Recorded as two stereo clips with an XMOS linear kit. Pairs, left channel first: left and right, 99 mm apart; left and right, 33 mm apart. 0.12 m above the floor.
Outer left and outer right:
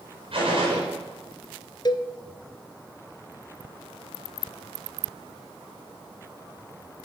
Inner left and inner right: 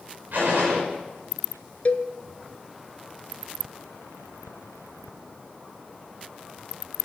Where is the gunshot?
65° right (ahead or behind), 5.5 m.